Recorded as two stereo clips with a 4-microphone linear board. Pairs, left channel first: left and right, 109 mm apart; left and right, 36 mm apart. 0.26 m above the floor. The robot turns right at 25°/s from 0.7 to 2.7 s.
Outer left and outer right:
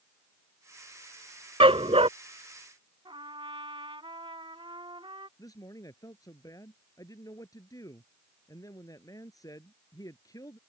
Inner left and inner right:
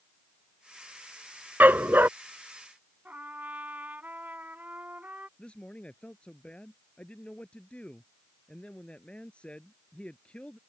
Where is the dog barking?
60° right (ahead or behind); by 2.1 s 70° right (ahead or behind).